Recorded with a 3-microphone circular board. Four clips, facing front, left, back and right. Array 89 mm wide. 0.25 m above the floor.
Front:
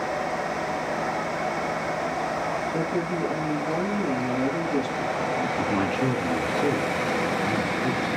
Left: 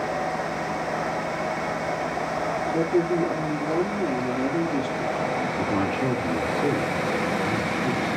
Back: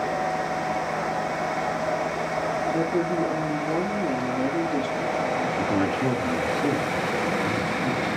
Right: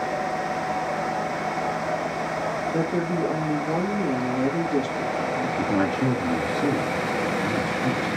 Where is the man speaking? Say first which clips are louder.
Right 3 dB, back 1 dB; 75° right, 3.5 m.